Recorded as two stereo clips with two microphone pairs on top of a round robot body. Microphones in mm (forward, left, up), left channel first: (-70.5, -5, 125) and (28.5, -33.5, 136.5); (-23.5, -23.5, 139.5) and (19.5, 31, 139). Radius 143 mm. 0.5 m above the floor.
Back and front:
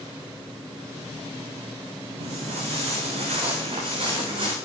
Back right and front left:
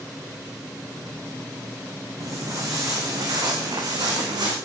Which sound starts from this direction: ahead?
Footsteps, at 2.2 s.